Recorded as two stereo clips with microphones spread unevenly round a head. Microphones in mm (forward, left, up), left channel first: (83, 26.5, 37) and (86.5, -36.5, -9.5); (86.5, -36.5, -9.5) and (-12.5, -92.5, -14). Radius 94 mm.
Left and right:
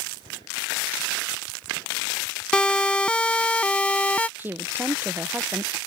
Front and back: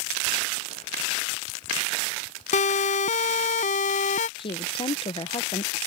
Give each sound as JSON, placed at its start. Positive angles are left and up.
{"t": 2.5, "sound": "a siren", "azimuth_deg": 25}
{"t": 4.4, "sound": "a woman speaking", "azimuth_deg": -5}